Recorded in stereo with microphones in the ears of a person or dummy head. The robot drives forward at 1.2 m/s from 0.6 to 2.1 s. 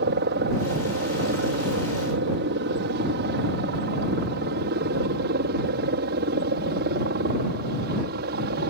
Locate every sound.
0.0 s a helicopter: 50° right (ahead or behind)